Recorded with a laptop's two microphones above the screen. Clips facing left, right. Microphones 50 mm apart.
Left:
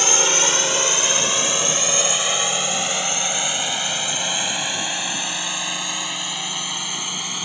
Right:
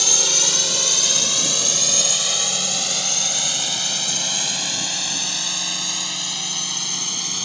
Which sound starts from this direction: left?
A drone, at 0.0 s.